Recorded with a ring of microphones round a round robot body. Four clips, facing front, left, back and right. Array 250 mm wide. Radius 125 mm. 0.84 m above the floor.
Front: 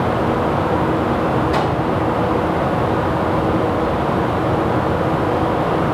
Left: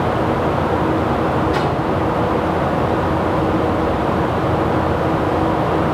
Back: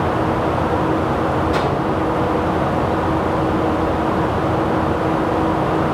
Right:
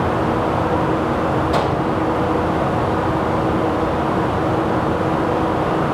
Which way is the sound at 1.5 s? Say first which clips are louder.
Even, even; 60° right.